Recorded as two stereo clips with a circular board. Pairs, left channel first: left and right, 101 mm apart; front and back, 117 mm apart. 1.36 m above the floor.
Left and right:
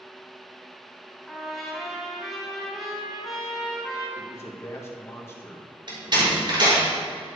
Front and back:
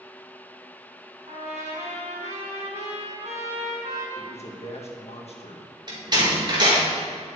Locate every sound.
1.3 s a trumpet: straight behind, 4 m
4.2 s a man speaking: 25° left, 1.8 m
5.9 s a door slam: 130° right, 4 m